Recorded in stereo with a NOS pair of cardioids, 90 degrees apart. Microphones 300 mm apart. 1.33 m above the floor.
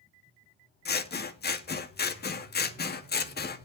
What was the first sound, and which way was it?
Scissors, 35° left.